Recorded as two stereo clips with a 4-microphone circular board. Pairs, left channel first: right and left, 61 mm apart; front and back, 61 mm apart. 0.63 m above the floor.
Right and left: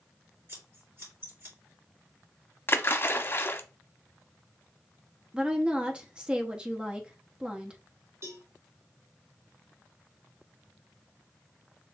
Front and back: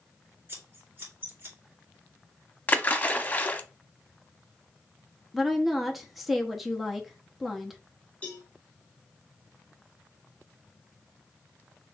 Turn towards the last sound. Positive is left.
turn(degrees=65)